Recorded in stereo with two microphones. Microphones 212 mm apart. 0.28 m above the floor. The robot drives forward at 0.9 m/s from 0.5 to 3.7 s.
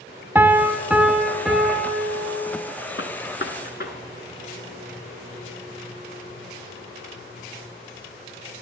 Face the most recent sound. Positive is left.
turn(degrees=55)  # may be behind; listen again after turning